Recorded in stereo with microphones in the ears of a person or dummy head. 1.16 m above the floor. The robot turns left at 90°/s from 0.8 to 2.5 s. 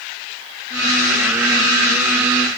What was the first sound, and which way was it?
Only background noise.